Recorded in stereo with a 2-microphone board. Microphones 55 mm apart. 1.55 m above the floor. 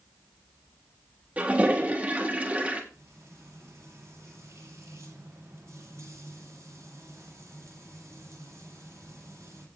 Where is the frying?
60° right (ahead or behind), 8 m.